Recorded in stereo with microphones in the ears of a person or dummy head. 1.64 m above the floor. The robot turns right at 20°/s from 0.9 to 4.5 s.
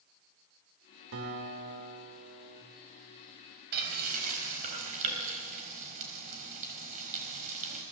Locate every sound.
1.1 s a guitar: 85° right, 5.5 m; by 2.6 s 55° right, 5.5 m
3.7 s frying: 60° right (ahead or behind), 4.5 m; by 7.8 s 45° right (ahead or behind), 4.5 m